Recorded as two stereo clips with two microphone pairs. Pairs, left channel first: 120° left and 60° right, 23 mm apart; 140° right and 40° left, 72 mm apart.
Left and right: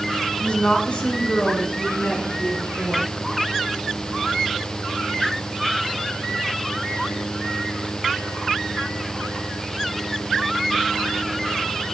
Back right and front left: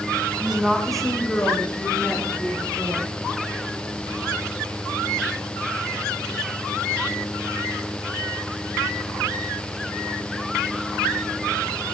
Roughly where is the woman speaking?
Behind left.